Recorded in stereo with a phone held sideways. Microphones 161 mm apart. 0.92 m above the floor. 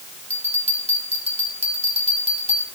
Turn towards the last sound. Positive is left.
turn(degrees=-40)  # may be behind; listen again after turning